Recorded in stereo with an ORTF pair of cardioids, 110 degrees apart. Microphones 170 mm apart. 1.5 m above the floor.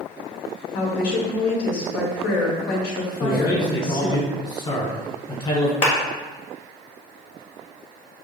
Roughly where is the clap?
Ahead left.